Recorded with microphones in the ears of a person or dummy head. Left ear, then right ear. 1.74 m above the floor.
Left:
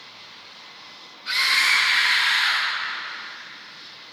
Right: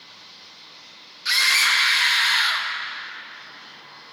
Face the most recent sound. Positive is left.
turn(degrees=-45)  # may be behind; listen again after turning